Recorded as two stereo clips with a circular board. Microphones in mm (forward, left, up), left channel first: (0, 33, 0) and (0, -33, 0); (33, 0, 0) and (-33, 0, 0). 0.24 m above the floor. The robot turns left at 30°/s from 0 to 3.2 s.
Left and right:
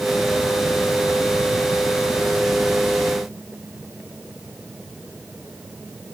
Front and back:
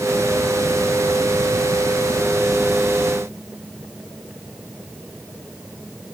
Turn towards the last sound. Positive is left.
No sound to turn to.